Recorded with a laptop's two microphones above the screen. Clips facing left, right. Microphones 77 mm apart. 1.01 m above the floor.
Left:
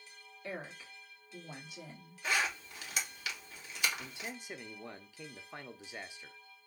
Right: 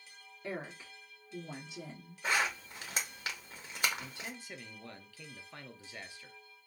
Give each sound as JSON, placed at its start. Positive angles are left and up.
{"t": 0.4, "sound": "a woman speaking", "side_deg": -35, "distance_m": 1.9}
{"t": 2.2, "sound": "a zipper", "side_deg": -40, "distance_m": 1.8}
{"t": 4.0, "sound": "a man speaking", "side_deg": 20, "distance_m": 0.6}